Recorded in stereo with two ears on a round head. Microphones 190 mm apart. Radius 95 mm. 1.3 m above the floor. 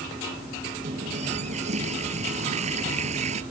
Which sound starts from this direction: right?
A running tap, at 0.8 s.